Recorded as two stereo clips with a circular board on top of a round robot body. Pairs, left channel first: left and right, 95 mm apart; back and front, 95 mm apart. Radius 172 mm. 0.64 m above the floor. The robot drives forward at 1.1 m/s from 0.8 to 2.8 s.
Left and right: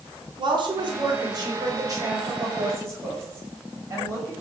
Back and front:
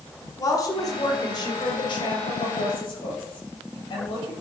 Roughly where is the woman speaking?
Behind right.